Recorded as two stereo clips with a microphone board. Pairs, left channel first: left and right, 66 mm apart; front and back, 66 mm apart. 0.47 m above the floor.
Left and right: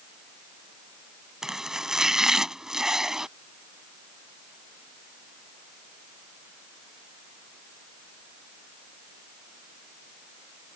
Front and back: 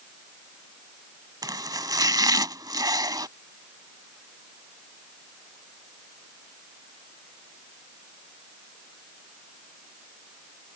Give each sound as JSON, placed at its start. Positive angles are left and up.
{"t": 1.4, "sound": "chopping", "azimuth_deg": -170}